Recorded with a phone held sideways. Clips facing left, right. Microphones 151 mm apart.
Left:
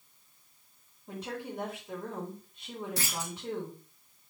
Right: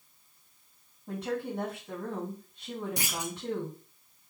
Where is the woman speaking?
65° right (ahead or behind), 5 m.